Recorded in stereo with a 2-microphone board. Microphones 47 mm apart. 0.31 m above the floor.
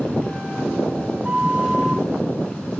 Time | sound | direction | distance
1.2 | a flute | 20° right (ahead or behind) | 0.9 m